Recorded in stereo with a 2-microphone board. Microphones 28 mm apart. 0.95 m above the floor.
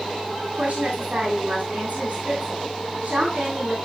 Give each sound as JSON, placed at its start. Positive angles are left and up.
{"t": 0.5, "sound": "a woman speaking", "side_deg": -55, "distance_m": 7.5}